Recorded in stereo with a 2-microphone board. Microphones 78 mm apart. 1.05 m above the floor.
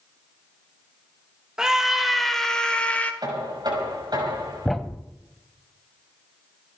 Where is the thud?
5° left (ahead or behind), 1.0 m.